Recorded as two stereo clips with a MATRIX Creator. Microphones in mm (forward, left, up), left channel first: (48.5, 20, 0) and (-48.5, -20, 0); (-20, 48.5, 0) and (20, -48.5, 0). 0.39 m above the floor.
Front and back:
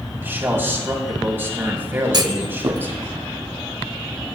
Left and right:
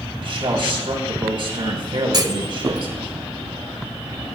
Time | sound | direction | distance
0.2 | a man speaking | 90° right | 2 m
2.1 | a clunk | 110° right | 0.6 m